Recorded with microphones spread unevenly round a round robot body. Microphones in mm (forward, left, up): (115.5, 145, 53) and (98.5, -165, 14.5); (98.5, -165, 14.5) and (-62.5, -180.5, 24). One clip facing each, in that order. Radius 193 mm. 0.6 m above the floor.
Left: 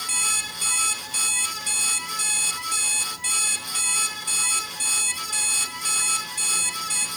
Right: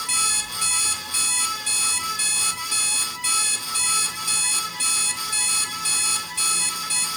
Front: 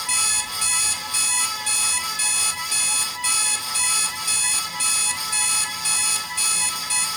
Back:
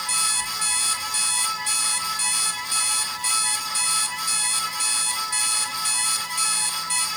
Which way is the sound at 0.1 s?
25° right.